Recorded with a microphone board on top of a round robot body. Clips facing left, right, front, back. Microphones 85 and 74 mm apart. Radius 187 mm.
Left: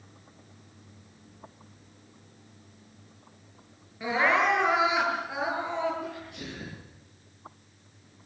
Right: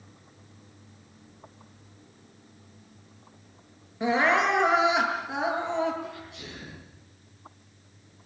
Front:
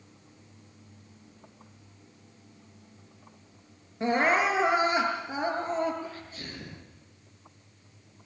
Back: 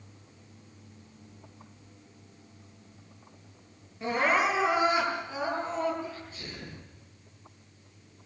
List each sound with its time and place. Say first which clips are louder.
4.0 s crying: right 2 dB, front 2 dB; 25° right, 7.5 m
6.0 s a sneeze: left 2 dB, even; 55° left, 9 m